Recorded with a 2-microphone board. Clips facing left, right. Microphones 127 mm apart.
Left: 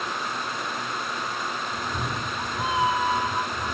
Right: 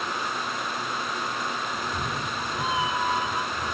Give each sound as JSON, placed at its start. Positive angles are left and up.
{"t": 1.7, "sound": "a cat meowing", "side_deg": 20, "distance_m": 1.1}